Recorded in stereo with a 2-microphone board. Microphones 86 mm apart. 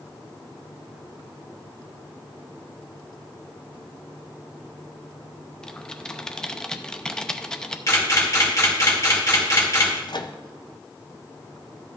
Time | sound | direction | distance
5.6 | typing on a keyboard | 10° left (ahead or behind) | 0.5 m
7.9 | a camera shutter | 40° left (ahead or behind) | 2.5 m
10.1 | a microwave | 60° left (ahead or behind) | 0.6 m